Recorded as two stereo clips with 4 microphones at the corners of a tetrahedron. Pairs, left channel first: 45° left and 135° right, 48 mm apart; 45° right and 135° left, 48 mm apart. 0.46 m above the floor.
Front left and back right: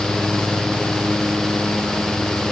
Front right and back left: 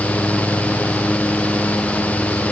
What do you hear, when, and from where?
Only background noise.